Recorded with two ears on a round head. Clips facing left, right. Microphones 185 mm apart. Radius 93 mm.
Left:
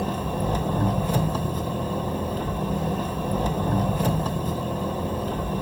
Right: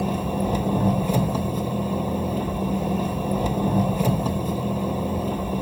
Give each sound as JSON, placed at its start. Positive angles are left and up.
{"t": 0.0, "sound": "an engine running", "side_deg": -10, "distance_m": 1.1}